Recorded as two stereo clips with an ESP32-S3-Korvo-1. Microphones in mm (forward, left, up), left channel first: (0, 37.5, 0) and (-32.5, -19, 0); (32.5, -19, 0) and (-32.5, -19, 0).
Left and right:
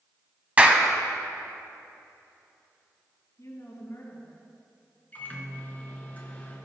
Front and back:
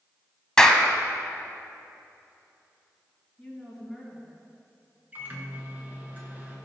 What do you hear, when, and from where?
0.6 s a clap: 70° right, 0.9 m
3.4 s a woman speaking: 90° left, 3.5 m
5.1 s a microwave: 120° left, 2.0 m